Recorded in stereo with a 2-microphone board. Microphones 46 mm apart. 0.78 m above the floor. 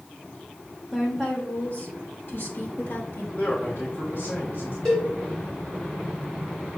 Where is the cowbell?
15° left (ahead or behind), 2 m.